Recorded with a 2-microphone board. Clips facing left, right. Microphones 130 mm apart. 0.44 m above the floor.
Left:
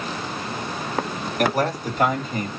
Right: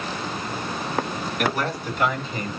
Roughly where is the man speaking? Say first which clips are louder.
Left 5 dB; left.